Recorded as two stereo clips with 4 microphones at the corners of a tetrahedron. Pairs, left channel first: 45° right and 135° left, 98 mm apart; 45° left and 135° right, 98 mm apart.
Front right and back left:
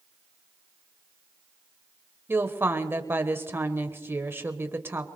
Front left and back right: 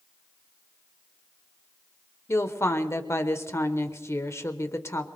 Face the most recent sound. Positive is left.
turn(degrees=85)